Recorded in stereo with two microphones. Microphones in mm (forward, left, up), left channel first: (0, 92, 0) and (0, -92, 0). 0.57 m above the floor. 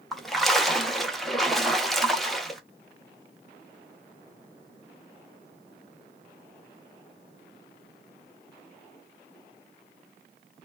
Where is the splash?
Centre (ahead or behind), 0.6 m.